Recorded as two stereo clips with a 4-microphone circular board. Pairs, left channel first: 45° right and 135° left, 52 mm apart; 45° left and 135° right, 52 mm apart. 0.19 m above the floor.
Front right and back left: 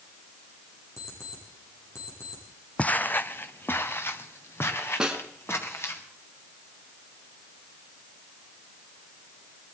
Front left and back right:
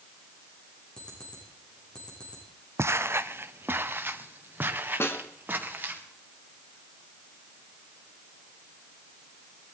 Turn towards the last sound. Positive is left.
turn(degrees=60)